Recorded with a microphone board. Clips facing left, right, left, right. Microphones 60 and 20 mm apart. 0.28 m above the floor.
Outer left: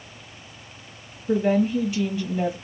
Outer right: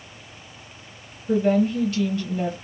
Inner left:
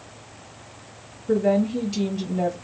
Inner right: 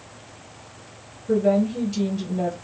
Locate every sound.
1.3 s a woman speaking: 15° left (ahead or behind), 1.0 m